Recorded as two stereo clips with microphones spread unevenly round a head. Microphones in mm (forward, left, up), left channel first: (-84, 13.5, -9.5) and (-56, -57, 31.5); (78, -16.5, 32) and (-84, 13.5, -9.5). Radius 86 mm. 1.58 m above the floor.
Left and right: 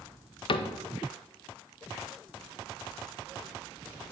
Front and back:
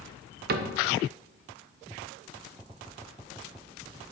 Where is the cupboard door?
130° left, 0.6 m.